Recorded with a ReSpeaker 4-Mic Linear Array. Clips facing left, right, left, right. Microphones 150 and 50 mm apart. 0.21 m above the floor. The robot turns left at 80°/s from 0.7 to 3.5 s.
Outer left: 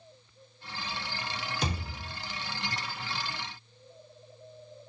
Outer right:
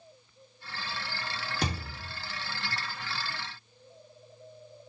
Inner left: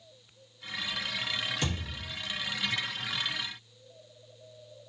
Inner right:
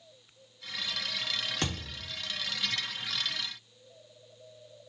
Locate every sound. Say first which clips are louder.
1.6 s a thud: outer right 3 dB, even; 75° right, 0.9 m; by 2.1 s 115° right, 0.9 m